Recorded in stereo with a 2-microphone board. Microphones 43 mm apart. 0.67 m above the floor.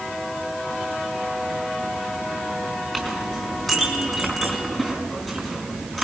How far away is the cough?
I don't hear a cough.